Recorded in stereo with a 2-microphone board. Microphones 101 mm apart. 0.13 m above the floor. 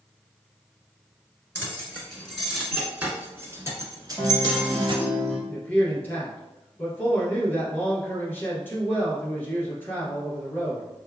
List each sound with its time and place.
1.6 s keys jangling: 20° left (ahead or behind), 1.4 m; by 5.0 s 45° right (ahead or behind), 1.6 m
4.2 s a guitar: 10° left (ahead or behind), 2 m
5.5 s a man speaking: 20° left (ahead or behind), 1.8 m